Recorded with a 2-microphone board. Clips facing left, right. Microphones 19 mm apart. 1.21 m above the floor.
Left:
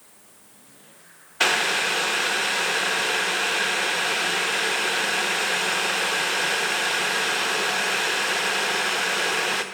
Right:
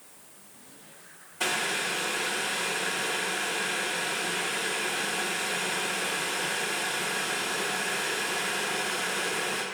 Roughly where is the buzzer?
I don't hear a buzzer.